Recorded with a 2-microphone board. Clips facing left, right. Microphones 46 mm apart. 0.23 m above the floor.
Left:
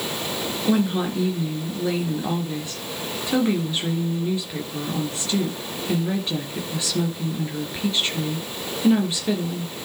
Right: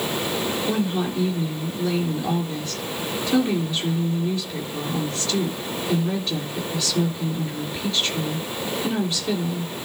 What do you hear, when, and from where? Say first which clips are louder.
0.7 s a woman speaking: left 6 dB; 20° left (ahead or behind), 3.5 m